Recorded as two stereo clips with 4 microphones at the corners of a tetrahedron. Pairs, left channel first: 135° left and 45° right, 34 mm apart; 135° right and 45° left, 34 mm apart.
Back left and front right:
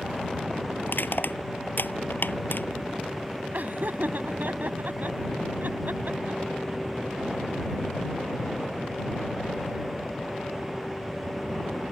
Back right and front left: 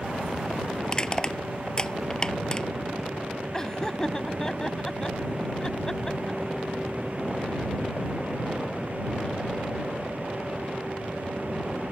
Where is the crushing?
155° left.